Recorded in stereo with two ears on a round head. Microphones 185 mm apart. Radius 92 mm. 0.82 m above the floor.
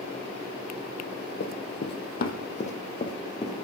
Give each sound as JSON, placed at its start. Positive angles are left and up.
{"t": 1.4, "sound": "running footsteps", "side_deg": 55, "distance_m": 1.6}